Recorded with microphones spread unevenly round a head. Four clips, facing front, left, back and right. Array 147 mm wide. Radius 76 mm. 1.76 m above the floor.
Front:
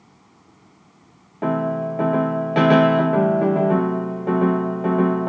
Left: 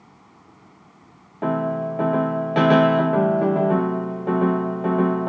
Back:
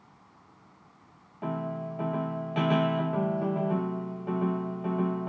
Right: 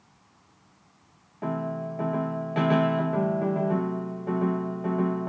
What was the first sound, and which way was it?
A fan, 60° left.